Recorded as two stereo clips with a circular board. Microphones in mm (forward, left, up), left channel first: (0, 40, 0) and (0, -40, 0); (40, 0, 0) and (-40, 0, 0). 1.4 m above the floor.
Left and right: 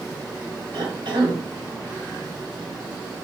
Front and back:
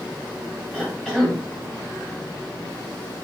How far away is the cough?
About 1.4 m.